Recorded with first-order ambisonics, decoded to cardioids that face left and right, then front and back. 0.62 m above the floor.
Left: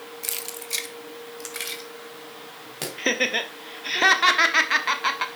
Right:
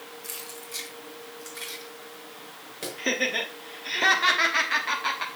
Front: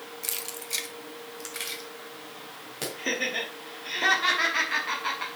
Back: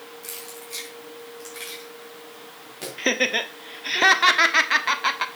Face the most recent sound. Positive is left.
turn(degrees=150)